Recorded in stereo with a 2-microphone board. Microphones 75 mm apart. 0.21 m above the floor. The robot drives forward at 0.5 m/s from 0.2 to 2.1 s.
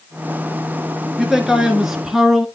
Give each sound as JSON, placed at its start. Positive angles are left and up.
{"t": 1.2, "sound": "a man speaking", "side_deg": -5, "distance_m": 3.0}